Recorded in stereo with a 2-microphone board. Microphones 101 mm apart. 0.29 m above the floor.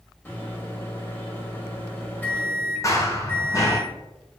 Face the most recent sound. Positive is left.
turn(degrees=30)  # may be behind; listen again after turning